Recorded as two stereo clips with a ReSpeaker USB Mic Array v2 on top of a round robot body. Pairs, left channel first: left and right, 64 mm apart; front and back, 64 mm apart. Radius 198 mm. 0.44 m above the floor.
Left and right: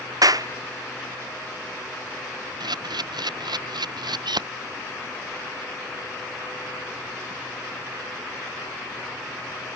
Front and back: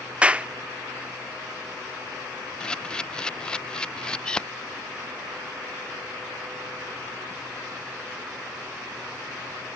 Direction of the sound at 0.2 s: 110° right.